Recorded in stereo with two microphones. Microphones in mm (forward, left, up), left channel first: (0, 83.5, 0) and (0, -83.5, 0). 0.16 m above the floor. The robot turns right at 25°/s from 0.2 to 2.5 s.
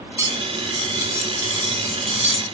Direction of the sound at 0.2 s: 20° right (ahead or behind).